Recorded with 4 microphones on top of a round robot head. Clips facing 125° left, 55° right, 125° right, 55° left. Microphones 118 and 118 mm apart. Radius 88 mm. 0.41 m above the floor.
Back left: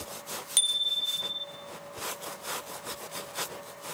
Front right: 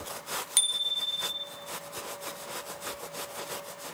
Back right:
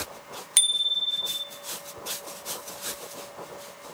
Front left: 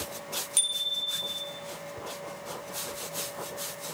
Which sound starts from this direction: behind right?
A bicycle bell, at 0.6 s.